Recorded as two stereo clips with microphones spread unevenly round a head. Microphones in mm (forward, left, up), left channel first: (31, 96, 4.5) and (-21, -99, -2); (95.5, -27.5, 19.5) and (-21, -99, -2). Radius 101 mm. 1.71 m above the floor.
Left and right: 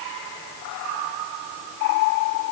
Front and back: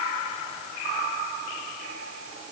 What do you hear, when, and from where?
Only background noise.